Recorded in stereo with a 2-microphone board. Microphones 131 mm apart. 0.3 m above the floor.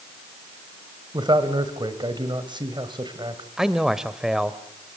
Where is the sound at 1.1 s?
35° right (ahead or behind), 1.8 m.